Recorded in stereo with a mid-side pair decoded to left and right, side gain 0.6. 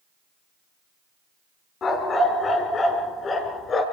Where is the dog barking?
40° left, 5 m.